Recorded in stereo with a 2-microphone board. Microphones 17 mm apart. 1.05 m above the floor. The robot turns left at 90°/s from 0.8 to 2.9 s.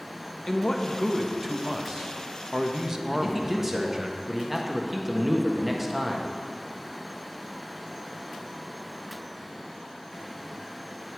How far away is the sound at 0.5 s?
About 1.2 m.